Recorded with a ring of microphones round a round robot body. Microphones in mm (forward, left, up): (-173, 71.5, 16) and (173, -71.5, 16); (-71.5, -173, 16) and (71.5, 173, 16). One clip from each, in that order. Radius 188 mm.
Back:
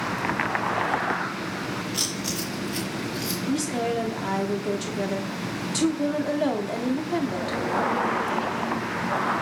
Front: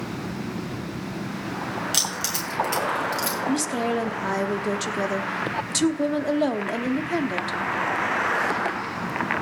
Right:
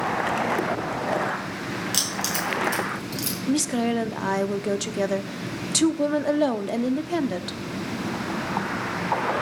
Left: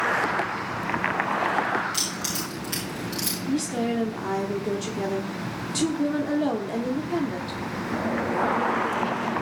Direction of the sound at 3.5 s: 90° right.